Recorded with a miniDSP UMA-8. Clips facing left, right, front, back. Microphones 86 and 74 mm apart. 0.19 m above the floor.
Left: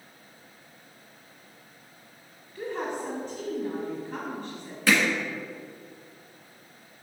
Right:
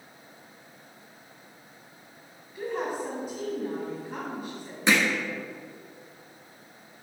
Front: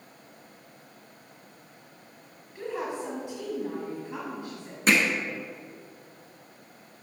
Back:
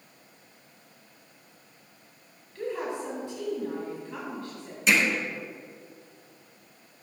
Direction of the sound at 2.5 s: 30° right.